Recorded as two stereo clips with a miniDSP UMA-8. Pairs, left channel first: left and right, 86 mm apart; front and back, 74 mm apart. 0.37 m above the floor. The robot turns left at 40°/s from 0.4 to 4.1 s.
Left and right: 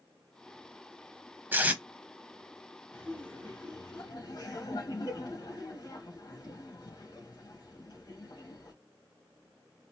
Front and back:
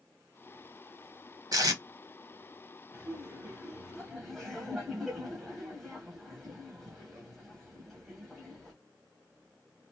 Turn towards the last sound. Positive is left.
turn(degrees=85)